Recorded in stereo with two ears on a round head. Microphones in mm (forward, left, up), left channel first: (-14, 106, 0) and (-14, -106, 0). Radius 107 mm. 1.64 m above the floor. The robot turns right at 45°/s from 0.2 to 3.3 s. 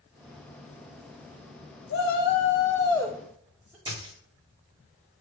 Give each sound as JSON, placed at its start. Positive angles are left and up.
{"t": 1.9, "sound": "a shout", "azimuth_deg": 125, "distance_m": 0.6}
{"t": 3.9, "sound": "a dropped coin", "side_deg": -20, "distance_m": 1.4}